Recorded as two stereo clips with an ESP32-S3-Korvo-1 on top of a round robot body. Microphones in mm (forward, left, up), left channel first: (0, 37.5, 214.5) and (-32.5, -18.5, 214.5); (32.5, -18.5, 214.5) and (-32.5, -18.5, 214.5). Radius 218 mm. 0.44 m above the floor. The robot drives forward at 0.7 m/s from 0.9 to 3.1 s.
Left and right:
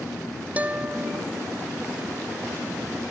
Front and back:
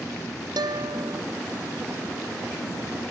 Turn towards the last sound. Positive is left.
turn(degrees=175)